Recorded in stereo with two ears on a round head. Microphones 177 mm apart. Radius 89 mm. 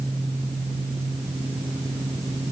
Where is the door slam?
No door slam in this recording.